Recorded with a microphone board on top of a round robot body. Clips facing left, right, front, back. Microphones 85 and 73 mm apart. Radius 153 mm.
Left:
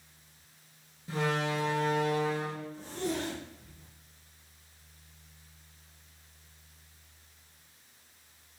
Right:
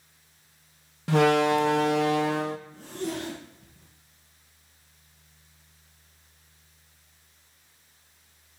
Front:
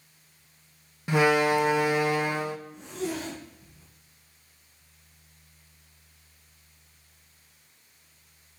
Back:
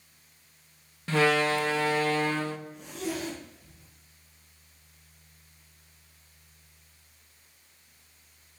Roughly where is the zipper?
Ahead right.